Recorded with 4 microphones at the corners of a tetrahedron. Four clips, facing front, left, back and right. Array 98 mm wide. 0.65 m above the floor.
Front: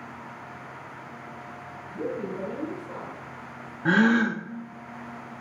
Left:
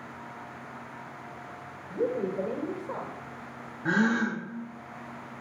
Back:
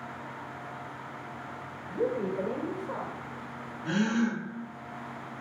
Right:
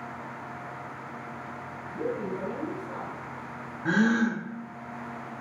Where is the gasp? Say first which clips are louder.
Right 2 dB, front 7 dB; 5° left, 0.5 m.